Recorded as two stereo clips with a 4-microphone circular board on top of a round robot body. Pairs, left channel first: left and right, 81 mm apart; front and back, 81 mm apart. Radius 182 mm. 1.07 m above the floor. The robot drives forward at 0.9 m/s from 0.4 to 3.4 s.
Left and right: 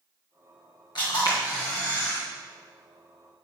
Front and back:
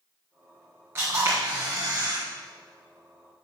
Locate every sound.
0.9 s a camera shutter: 120° left, 2 m; by 2.2 s 140° left, 3 m